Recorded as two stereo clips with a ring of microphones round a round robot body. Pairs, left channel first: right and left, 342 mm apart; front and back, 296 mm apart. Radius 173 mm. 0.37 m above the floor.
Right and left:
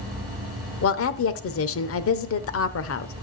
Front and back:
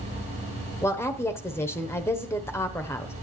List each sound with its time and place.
0.8 s a woman speaking: 75° right, 0.9 m